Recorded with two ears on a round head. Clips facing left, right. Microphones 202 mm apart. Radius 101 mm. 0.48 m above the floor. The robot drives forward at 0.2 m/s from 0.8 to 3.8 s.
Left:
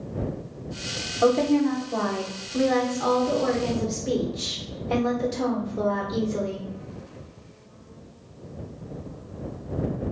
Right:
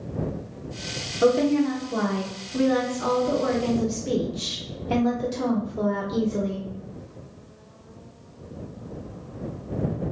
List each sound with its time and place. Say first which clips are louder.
1.2 s a woman speaking: even; 20° right (ahead or behind), 0.9 m